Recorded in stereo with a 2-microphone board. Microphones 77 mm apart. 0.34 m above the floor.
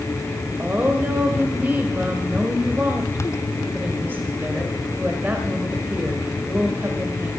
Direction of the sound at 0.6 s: 25° right (ahead or behind).